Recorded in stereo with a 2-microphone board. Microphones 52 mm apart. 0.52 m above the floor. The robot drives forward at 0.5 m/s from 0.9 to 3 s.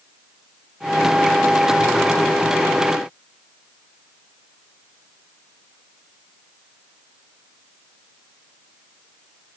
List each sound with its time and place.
Only background noise.